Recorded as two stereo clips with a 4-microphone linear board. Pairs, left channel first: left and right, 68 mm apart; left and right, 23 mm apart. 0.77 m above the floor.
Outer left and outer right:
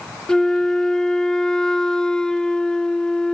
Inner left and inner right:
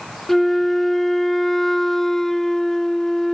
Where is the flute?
10° left (ahead or behind), 0.6 m.